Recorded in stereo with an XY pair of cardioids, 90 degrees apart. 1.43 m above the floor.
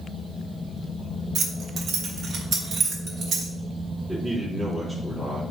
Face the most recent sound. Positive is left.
turn(degrees=-15)